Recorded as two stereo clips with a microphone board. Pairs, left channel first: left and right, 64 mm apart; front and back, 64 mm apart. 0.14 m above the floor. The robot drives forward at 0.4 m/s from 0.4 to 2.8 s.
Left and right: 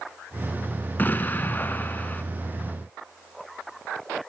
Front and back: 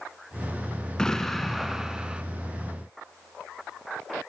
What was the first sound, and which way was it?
An explosion, 70° left.